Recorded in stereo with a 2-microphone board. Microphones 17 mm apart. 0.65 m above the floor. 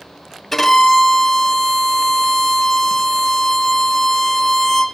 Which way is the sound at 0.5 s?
15° left (ahead or behind).